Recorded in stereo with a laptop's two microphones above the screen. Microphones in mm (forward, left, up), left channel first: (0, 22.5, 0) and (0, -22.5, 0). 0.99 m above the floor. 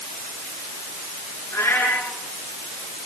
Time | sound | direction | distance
1.5 | a cat meowing | 90° left | 8.5 m